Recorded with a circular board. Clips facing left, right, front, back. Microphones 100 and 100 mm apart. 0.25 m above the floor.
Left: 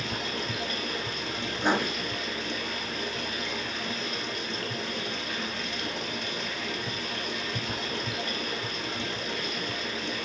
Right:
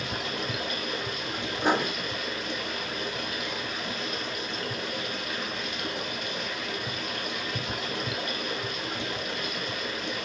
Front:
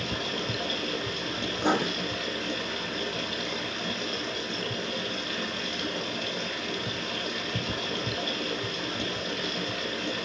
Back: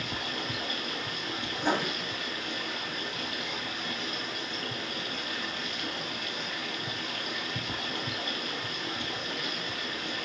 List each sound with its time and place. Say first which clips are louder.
0.0 s running water: right 1 dB, front 4 dB; 10° right, 3.5 m
1.6 s writing: right 1 dB, front 3 dB; 5° right, 2.5 m